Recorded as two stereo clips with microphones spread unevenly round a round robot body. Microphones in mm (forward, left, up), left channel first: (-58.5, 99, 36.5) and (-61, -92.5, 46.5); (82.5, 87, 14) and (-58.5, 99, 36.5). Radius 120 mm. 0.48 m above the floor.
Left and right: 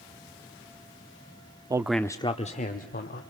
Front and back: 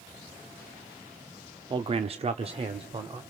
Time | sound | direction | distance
1.7 | a man speaking | 145° right | 0.8 m